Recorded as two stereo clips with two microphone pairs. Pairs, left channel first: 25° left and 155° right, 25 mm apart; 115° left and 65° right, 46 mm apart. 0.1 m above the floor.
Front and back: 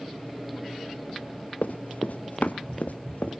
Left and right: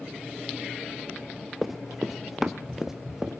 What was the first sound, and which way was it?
Running footsteps, 20° left.